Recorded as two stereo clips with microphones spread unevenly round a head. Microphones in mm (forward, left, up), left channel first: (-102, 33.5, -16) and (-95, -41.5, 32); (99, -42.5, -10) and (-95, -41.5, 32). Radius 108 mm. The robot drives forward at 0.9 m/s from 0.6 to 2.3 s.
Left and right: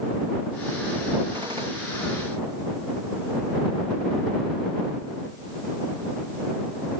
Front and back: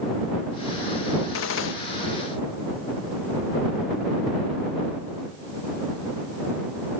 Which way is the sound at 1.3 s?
20° right.